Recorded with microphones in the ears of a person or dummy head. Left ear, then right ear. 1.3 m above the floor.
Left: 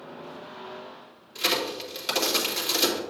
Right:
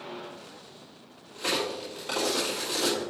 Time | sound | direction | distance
1.4 | a crack | 65° left (ahead or behind) | 2.5 m